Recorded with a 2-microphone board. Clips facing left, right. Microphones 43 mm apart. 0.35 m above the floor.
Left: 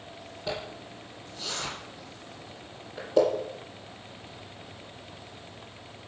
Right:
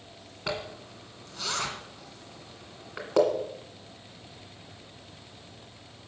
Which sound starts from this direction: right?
A zipper, at 0.5 s.